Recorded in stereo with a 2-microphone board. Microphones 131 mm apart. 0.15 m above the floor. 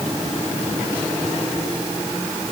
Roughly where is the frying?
No frying in this recording.